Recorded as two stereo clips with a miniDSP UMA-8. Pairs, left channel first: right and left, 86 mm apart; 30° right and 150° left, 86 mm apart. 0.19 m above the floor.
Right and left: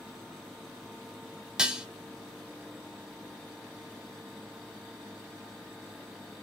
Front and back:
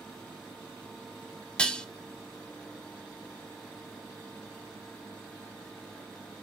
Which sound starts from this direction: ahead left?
Dishes clattering, at 1.6 s.